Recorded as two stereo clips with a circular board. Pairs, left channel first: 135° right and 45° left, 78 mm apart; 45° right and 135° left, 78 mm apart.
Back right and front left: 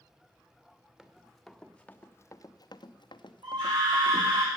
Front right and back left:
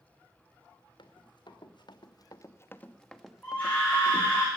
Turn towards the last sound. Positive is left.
turn(degrees=25)